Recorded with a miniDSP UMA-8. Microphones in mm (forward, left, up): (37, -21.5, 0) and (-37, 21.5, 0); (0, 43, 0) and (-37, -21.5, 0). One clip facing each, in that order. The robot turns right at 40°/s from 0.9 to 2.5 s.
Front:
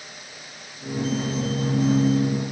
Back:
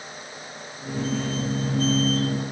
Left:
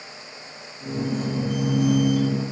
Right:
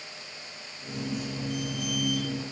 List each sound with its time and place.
Only background noise.